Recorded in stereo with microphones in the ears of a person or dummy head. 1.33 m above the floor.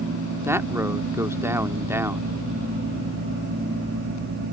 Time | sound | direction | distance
0.5 | a man speaking | 15° right (ahead or behind) | ?